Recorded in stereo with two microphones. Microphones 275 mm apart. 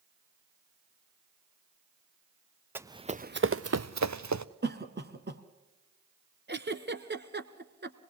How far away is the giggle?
About 1.0 m.